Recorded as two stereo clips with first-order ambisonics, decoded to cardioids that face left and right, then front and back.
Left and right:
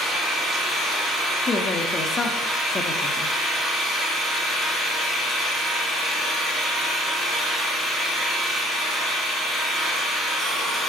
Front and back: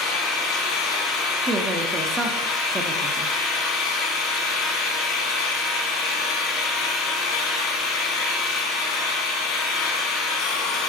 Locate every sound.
0.0 s an engine running: 15° right, 2 m
1.5 s a woman speaking: 130° left, 0.7 m